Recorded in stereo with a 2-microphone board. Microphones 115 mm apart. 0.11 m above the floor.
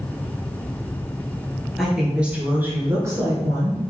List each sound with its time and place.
1.8 s a woman speaking: centre (ahead or behind), 2 m; by 3.9 s 40° right (ahead or behind), 1.9 m